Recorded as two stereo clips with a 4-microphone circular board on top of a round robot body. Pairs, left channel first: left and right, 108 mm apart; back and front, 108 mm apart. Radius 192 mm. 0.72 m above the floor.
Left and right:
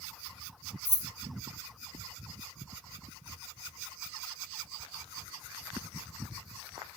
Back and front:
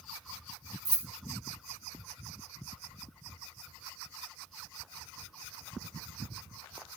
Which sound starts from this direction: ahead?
Keys jangling, at 0.8 s.